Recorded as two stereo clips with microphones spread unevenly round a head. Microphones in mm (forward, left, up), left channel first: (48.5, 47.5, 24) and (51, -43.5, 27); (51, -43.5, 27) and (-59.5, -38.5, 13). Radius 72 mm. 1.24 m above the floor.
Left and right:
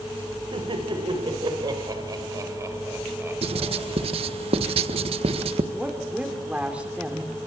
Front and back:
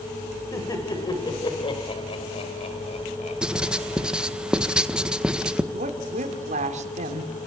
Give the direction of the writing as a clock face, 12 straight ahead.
3 o'clock.